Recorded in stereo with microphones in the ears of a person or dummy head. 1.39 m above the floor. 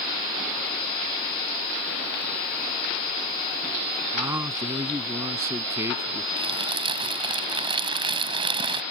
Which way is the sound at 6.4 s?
30° right (ahead or behind).